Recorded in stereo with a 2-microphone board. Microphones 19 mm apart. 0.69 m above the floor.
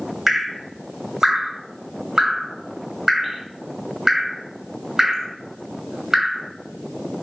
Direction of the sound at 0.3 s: 20° right (ahead or behind).